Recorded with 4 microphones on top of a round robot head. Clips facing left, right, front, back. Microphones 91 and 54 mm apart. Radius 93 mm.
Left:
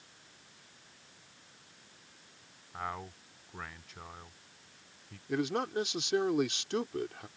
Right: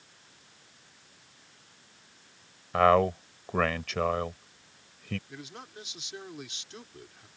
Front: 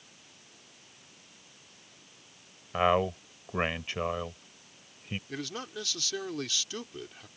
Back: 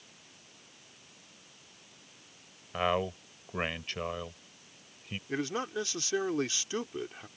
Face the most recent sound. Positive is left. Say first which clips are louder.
# left 13 dB, back 9 dB
turn(degrees=120)